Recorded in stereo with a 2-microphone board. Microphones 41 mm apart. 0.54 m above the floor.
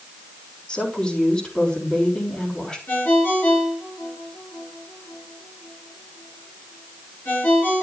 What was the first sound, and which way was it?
A woman speaking, 30° left (ahead or behind).